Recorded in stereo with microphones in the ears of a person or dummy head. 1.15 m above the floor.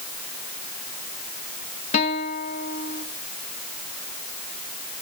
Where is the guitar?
35° left (ahead or behind), 1.8 m.